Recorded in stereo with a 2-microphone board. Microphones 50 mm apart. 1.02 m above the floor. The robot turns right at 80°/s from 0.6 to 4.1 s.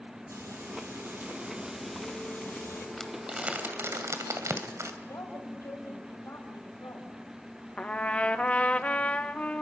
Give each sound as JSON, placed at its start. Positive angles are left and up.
{"t": 0.3, "sound": "frying", "azimuth_deg": -105, "distance_m": 6.5}
{"t": 3.0, "sound": "crumpling", "side_deg": 15, "distance_m": 2.0}
{"t": 5.0, "sound": "a woman speaking", "side_deg": 80, "distance_m": 5.5}
{"t": 7.8, "sound": "a trumpet", "side_deg": 25, "distance_m": 0.9}